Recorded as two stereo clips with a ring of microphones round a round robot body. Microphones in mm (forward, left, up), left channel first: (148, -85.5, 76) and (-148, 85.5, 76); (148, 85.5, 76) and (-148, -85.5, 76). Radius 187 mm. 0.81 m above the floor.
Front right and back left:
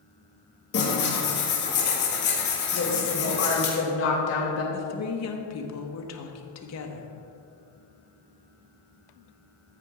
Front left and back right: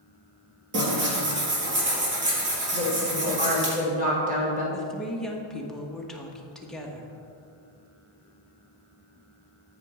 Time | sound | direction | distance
0.7 | tearing paper | 90° right | 3 m
2.7 | a woman speaking | 80° right | 3 m
4.7 | a woman speaking | 60° right | 1.2 m